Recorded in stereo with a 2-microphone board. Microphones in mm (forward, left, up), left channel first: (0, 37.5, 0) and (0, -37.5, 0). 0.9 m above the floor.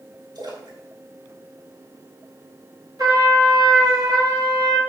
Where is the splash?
80° right, 3.5 m.